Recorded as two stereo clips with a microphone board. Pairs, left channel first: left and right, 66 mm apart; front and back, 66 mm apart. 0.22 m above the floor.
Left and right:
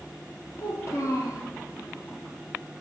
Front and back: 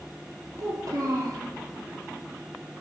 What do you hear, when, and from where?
0.6 s a child speaking: 135° left, 3.5 m